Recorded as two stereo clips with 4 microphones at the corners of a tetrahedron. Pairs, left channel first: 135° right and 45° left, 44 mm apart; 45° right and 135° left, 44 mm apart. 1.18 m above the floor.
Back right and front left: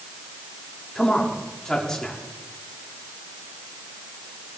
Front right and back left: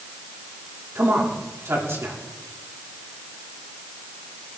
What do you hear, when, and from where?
0.9 s a man speaking: 150° left, 3.5 m